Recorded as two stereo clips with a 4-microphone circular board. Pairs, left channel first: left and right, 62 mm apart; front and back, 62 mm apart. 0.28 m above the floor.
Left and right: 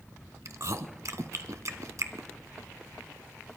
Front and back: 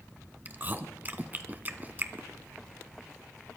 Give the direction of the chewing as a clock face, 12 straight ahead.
4 o'clock.